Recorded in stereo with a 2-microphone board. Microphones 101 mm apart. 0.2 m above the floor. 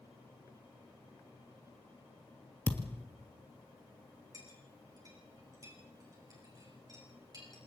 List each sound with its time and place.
2.7 s a thud: 20° left (ahead or behind), 1.9 m
4.3 s a clink: 35° right (ahead or behind), 7.5 m